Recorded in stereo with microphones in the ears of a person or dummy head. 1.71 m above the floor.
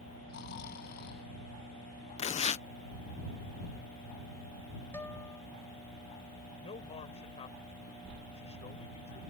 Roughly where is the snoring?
Left.